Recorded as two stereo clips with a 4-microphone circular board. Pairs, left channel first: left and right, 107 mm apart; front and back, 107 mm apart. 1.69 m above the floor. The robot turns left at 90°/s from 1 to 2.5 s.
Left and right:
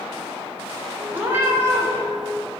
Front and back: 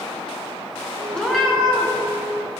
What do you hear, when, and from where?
1.1 s a cat meowing: 65° right, 1.6 m; by 1.9 s 135° right, 1.6 m